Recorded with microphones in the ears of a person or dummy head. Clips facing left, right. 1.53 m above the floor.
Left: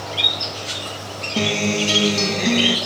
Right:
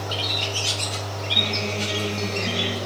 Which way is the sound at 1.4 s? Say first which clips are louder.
Left 9 dB; 65° left (ahead or behind).